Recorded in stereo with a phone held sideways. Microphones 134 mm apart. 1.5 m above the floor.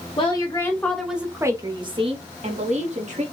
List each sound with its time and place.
0.2 s a woman speaking: 40° left (ahead or behind), 0.8 m; by 3.2 s 65° right (ahead or behind), 1.4 m